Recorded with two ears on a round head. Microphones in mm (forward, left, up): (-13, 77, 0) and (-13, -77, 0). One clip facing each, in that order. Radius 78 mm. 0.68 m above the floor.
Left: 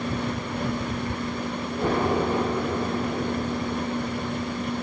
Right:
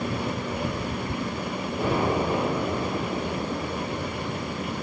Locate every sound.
1.8 s an explosion: 10° right (ahead or behind), 9.5 m